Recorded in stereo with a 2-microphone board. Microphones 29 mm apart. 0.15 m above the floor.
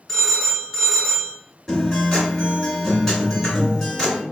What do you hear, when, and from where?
0.1 s a phone ringing: 15° left (ahead or behind), 1.2 m
1.7 s a guitar: 10° left (ahead or behind), 2.0 m